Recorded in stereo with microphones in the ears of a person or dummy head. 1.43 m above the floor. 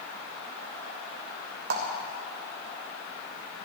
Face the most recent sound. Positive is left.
turn(degrees=-60)  # may be behind; listen again after turning